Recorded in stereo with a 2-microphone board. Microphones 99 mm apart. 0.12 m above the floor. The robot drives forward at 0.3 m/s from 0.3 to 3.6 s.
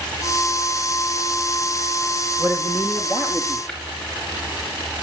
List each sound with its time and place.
2.4 s a man speaking: 20° right (ahead or behind), 4 m
3.7 s tapping: 10° left (ahead or behind), 5 m